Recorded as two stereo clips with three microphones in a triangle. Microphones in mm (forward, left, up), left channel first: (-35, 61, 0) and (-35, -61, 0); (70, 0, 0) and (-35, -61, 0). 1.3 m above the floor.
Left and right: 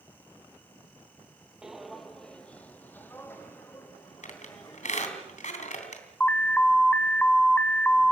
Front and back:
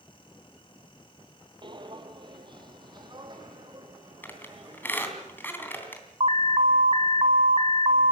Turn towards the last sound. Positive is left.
turn(degrees=170)